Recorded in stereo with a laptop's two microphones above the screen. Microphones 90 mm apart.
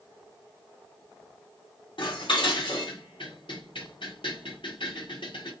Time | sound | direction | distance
2.0 | dishes clattering | 70° left (ahead or behind) | 1.7 m